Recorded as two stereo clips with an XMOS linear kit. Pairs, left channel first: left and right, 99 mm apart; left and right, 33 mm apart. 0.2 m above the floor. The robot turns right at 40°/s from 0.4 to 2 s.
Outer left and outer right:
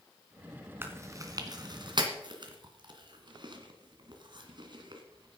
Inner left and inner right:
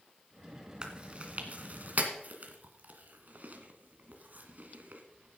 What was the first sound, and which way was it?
Chewing, 25° right (ahead or behind).